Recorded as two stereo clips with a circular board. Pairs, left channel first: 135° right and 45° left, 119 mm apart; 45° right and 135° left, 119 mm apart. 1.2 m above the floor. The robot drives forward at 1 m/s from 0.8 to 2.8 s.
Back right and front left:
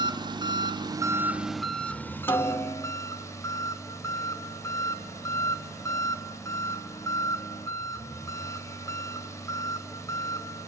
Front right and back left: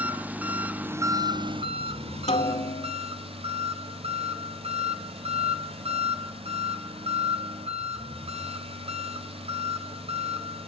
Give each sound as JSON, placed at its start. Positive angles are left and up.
{"t": 0.0, "sound": "an engine running", "azimuth_deg": 65, "distance_m": 0.9}
{"t": 2.3, "sound": "a snare drum", "azimuth_deg": -65, "distance_m": 2.5}